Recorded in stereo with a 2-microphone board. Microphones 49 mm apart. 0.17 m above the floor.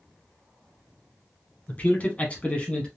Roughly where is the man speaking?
Left.